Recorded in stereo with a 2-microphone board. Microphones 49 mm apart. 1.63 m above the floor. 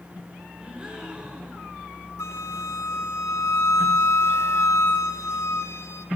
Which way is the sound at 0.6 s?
15° right (ahead or behind).